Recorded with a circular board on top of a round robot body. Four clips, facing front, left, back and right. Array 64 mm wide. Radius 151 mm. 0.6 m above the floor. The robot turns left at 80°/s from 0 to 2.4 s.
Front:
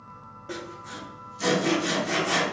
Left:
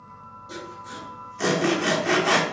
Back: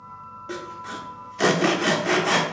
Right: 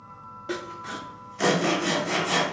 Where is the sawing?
95° right, 0.8 m; by 2.4 s 115° left, 0.8 m.